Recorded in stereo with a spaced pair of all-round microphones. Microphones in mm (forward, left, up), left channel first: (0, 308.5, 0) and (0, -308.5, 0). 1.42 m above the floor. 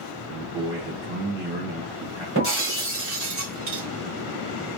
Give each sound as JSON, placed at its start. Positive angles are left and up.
{"t": 0.3, "sound": "a man speaking", "side_deg": -45, "distance_m": 1.7}
{"t": 2.4, "sound": "breaking glass", "side_deg": -20, "distance_m": 2.5}